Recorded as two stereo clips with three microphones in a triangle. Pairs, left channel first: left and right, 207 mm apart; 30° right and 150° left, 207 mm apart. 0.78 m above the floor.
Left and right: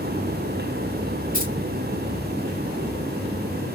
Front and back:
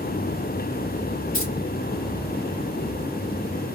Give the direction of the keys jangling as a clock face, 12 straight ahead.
1 o'clock.